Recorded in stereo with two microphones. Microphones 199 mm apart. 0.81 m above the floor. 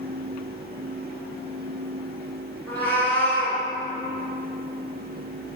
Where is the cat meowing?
10° left (ahead or behind), 0.9 m.